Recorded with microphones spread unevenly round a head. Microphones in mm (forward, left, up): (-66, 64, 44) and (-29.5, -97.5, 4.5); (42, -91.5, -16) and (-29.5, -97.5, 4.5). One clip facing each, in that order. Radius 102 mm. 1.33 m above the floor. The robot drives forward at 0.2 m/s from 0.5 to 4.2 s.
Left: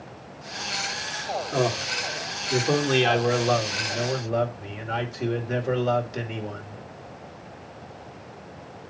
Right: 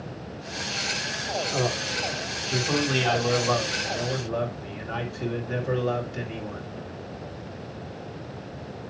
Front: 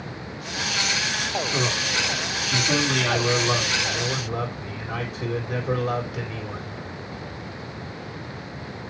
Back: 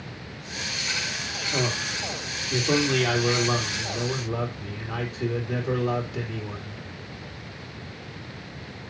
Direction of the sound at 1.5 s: 140° left.